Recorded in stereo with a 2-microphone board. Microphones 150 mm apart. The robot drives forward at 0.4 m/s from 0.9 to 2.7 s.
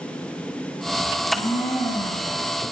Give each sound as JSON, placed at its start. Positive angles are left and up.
{"t": 1.1, "sound": "a blender", "side_deg": 30, "distance_m": 4.5}